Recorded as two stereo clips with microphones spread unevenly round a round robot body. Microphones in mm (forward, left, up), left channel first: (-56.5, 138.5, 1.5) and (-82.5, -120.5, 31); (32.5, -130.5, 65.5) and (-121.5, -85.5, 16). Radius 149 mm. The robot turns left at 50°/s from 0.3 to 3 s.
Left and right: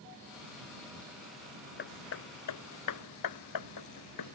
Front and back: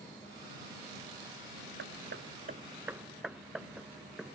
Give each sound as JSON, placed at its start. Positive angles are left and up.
{"t": 1.8, "sound": "hammering", "azimuth_deg": 135}